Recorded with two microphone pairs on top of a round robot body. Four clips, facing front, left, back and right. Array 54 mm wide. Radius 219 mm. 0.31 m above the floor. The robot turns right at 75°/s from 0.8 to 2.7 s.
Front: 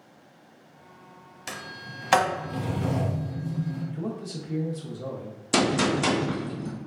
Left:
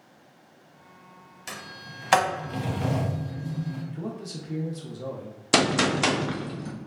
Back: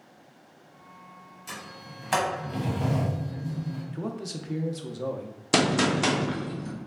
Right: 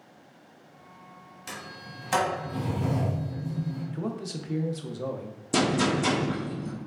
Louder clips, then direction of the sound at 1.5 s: Left 1 dB, front 4 dB; 15° left.